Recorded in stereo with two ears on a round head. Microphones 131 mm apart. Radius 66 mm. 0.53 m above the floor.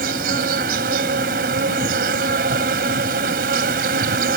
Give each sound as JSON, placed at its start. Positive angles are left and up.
{"t": 0.0, "sound": "an insect", "side_deg": -70}